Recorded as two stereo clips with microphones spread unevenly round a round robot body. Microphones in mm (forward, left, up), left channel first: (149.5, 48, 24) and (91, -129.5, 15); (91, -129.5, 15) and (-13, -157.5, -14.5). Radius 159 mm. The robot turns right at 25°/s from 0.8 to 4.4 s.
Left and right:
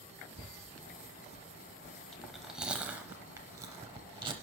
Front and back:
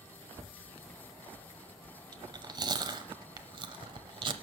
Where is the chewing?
150° left, 0.6 m; by 4.3 s 155° right, 0.6 m.